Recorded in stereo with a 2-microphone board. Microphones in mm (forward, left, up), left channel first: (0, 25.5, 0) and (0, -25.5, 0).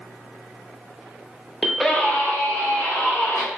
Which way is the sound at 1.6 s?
20° right (ahead or behind).